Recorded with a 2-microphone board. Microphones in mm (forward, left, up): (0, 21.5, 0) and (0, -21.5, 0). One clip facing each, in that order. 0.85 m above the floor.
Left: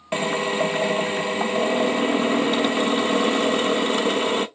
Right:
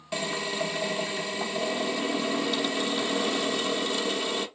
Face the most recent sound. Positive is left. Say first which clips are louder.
# left 8 dB
turn(degrees=40)  # may be behind; listen again after turning